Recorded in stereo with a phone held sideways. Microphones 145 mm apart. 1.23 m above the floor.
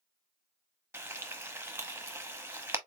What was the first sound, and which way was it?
Frying, 15° right (ahead or behind).